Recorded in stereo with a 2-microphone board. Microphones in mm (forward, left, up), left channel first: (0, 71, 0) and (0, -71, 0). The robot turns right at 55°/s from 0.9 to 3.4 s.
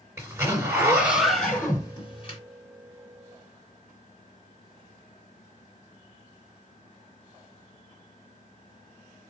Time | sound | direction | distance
0.2 | a zipper | 25° right | 2.5 m